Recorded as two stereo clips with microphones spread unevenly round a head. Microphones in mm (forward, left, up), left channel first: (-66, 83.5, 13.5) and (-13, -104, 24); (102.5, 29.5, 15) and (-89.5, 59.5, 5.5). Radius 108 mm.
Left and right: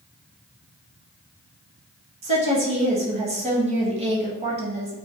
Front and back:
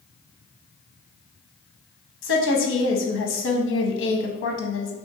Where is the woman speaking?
15° right, 0.8 m.